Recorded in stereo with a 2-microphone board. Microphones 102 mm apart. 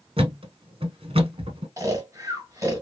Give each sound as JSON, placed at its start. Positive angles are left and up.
{"t": 0.2, "sound": "a thud", "side_deg": -70, "distance_m": 1.0}
{"t": 1.8, "sound": "snoring", "side_deg": -30, "distance_m": 1.8}